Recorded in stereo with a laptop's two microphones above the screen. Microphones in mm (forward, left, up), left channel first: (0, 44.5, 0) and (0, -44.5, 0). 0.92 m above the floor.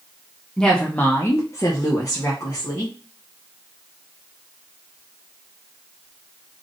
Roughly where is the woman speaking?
Centre.